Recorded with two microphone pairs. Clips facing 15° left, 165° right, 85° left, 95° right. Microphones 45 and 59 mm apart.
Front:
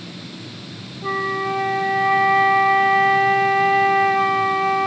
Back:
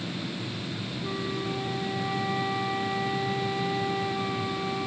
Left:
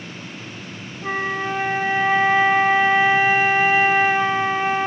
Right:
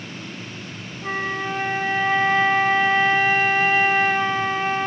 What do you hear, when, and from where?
1.0 s a flute: 10° left